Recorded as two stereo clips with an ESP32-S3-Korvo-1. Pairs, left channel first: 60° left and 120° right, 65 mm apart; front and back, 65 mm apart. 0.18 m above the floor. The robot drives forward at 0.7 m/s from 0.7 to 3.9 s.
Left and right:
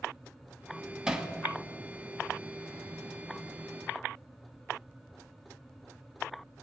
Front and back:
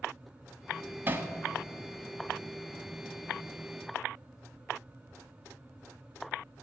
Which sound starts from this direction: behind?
Hammering, at 1.1 s.